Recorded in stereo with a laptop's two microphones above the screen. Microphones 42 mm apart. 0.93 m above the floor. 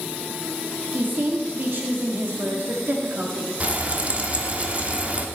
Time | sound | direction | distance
0.9 | a woman speaking | 50° right (ahead or behind) | 1.9 m
3.6 | frying | 35° right (ahead or behind) | 0.7 m